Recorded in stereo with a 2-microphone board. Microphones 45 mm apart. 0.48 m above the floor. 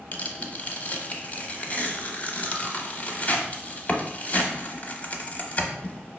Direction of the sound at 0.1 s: 35° left (ahead or behind).